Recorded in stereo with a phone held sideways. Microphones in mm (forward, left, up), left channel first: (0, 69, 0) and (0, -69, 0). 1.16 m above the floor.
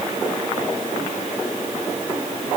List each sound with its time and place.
Only background noise.